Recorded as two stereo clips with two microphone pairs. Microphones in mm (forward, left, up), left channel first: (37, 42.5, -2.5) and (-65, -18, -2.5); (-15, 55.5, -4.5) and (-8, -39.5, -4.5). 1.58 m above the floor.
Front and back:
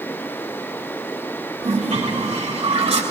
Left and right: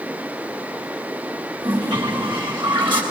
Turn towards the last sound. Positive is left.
turn(degrees=-115)